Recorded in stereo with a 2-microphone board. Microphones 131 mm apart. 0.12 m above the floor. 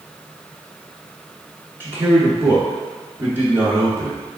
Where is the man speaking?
15° right (ahead or behind), 1.2 m.